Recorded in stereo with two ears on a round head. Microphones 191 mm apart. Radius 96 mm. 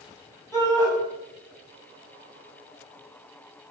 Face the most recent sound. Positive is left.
turn(degrees=15)  # may be behind; listen again after turning